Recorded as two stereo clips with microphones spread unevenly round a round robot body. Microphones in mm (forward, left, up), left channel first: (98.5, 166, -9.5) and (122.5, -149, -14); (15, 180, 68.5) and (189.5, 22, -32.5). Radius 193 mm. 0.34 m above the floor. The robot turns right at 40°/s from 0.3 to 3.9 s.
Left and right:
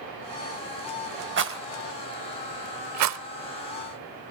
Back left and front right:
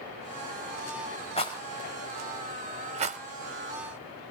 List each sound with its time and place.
1.4 s a rattle: 140° right, 0.7 m; by 3.2 s 65° right, 0.7 m